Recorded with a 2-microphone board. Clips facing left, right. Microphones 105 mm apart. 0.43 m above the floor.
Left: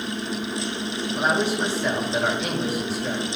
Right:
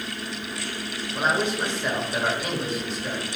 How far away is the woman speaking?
About 1.5 m.